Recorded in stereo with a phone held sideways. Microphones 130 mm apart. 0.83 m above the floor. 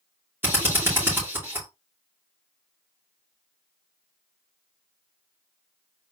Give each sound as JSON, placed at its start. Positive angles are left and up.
{"t": 0.4, "sound": "a drill", "side_deg": -15, "distance_m": 3.5}